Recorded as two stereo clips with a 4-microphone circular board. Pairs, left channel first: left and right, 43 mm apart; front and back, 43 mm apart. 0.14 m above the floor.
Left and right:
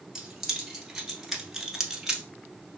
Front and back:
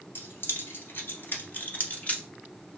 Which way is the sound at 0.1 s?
Straight ahead.